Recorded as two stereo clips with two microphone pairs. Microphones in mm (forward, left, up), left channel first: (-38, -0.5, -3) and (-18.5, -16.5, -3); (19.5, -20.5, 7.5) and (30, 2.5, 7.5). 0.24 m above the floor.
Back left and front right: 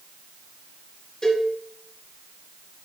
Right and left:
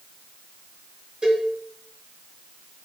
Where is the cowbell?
100° left, 1.7 m.